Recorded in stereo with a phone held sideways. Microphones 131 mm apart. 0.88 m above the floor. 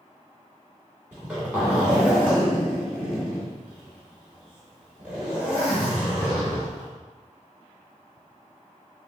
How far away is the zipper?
About 1.9 m.